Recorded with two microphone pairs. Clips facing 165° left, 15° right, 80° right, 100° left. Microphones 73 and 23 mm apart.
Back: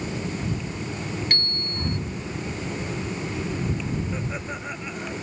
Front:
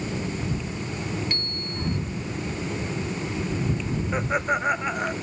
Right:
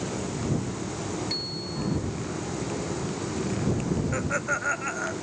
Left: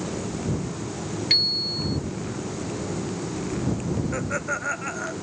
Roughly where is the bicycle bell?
Behind left.